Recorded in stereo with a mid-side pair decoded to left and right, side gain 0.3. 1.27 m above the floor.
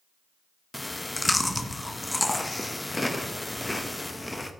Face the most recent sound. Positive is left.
turn(degrees=15)